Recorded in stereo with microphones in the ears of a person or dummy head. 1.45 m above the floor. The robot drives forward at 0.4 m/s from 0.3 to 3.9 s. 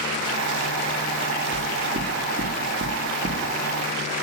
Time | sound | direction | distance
1.5 | knocking | 75° right (ahead or behind) | 4 m